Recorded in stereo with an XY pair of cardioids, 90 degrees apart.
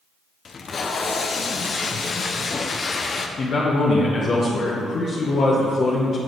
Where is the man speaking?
55° left, 1.0 m.